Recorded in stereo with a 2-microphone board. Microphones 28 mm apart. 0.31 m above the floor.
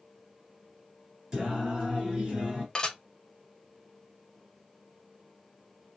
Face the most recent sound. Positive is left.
turn(degrees=30)  # may be behind; listen again after turning